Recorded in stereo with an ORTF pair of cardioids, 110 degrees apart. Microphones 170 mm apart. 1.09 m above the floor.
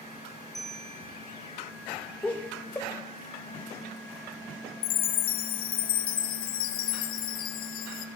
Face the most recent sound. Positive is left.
turn(degrees=65)